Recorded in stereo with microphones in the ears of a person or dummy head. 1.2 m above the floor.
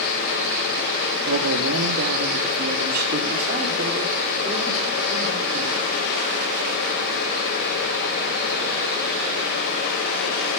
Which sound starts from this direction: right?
A man speaking, at 1.3 s.